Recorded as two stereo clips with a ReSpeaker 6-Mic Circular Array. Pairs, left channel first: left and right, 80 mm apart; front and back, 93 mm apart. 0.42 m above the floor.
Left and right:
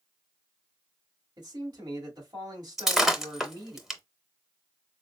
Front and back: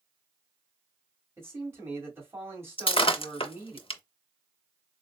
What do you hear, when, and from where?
1.4 s a man speaking: 120° right, 1.9 m
2.8 s breaking glass: 5° right, 0.6 m